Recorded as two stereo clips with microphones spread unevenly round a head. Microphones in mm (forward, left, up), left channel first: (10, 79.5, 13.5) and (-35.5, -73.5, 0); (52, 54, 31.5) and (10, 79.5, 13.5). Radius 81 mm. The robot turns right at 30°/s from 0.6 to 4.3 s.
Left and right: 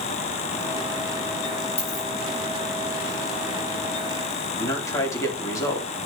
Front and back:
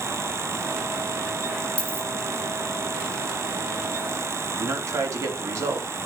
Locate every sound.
1.8 s a dropped coin: 20° left, 5.5 m; by 2.1 s 30° left, 5.5 m
4.6 s a man speaking: 145° left, 3 m